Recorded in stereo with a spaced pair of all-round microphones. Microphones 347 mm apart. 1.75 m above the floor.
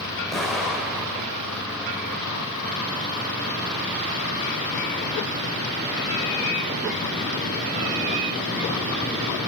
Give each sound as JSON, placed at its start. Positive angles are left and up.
{"t": 0.3, "sound": "an explosion", "side_deg": 0, "distance_m": 5.5}